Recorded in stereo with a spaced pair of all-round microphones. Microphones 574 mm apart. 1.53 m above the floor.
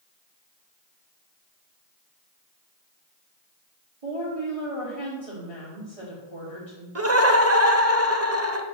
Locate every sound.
4.0 s a woman speaking: 75° right (ahead or behind), 4 m
7.0 s laughter: 25° right (ahead or behind), 1.1 m